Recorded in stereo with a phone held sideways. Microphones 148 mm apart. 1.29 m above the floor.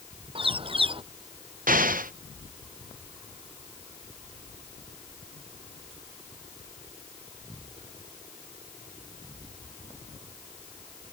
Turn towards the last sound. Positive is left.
turn(degrees=-70)  # may be behind; listen again after turning